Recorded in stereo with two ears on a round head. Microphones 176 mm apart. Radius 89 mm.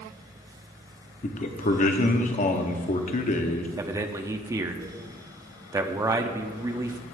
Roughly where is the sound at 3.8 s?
Centre.